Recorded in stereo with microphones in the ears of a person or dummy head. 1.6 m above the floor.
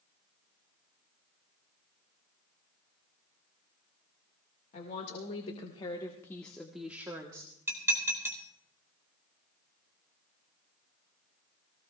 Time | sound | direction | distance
4.7 | a woman speaking | 45° left (ahead or behind) | 2 m
7.7 | dishes clattering | 15° right (ahead or behind) | 3 m